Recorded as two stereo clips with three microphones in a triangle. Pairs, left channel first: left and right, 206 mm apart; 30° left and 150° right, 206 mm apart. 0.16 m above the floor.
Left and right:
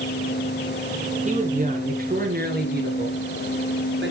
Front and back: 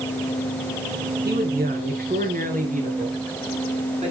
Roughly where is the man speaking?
Behind right.